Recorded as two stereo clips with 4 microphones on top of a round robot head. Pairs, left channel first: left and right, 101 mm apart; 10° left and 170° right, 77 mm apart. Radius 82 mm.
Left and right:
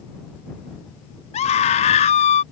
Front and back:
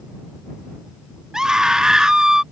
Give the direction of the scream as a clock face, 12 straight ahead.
8 o'clock.